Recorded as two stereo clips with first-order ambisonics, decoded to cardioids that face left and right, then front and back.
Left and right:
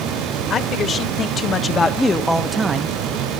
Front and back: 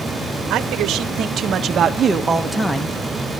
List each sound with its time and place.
0.5 s a man speaking: 140° left, 1.4 m; by 2.9 s 50° right, 0.8 m